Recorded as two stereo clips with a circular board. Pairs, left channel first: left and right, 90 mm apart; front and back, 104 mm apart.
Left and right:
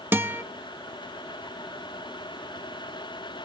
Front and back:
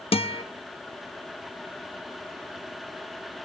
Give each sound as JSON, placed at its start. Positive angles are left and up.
{"t": 0.1, "sound": "a guitar", "azimuth_deg": -20, "distance_m": 0.9}